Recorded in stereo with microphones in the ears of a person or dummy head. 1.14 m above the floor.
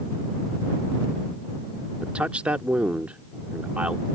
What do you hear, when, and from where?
2.0 s a man speaking: 10° right (ahead or behind)